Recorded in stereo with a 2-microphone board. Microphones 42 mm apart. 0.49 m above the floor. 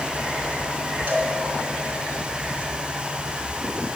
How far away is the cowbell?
About 2.5 m.